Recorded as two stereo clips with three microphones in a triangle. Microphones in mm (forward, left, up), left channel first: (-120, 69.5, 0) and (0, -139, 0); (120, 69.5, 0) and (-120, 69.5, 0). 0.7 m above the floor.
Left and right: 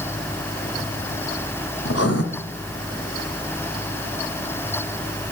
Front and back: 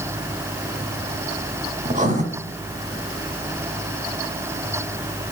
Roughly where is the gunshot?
I don't hear a gunshot.